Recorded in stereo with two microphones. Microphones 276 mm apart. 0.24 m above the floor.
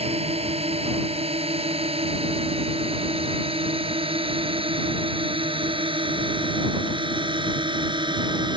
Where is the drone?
25° right (ahead or behind); by 8.6 s 20° right (ahead or behind).